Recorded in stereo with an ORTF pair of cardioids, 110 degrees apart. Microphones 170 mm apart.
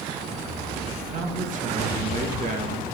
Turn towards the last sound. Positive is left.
turn(degrees=-50)